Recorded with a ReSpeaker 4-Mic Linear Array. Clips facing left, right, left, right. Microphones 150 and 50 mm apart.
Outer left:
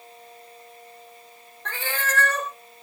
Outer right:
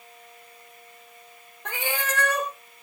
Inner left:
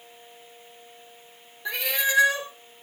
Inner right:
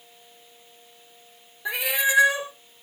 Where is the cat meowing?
15° right (ahead or behind), 0.7 m.